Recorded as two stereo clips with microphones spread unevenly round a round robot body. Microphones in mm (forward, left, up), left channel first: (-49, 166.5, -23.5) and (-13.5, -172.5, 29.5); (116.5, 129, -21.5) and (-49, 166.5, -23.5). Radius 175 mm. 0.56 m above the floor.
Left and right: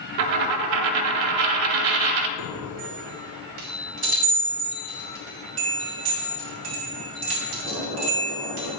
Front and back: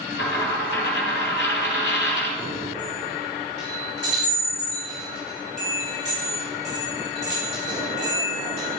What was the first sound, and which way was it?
A dropped coin, 70° right.